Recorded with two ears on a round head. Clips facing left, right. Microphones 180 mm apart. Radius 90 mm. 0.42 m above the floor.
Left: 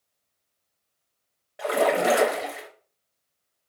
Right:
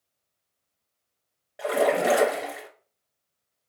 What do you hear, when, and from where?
1.6 s a splash: 5° right (ahead or behind), 0.6 m